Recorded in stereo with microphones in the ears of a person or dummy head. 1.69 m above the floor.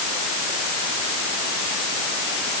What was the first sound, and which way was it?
Only background noise.